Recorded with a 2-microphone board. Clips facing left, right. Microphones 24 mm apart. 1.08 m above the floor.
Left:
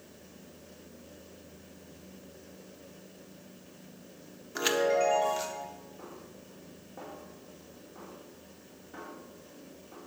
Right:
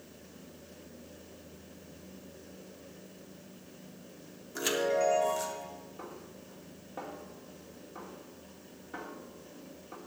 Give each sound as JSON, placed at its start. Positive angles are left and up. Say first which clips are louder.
{"t": 4.5, "sound": "a chime", "louder": "left 3 dB", "side_deg": 30, "distance_m": 1.1}
{"t": 6.0, "sound": "a snare drum", "louder": "right 1 dB", "side_deg": -35, "distance_m": 2.0}